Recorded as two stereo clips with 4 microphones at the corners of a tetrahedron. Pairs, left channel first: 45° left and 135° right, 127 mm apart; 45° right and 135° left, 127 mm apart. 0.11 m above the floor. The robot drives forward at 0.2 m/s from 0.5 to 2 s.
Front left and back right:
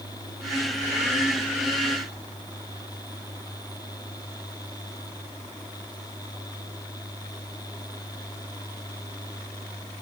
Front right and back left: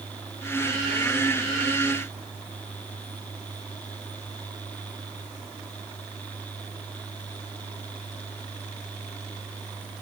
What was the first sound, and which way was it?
Only background noise.